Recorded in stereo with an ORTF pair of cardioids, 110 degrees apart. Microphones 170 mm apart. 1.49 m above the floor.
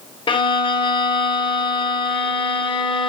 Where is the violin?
30° left, 1.3 m.